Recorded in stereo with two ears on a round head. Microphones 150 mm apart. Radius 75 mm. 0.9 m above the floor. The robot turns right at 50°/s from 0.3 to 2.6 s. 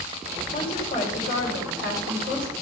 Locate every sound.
0.5 s a woman speaking: 25° left, 3.5 m; by 2.5 s 125° left, 3.5 m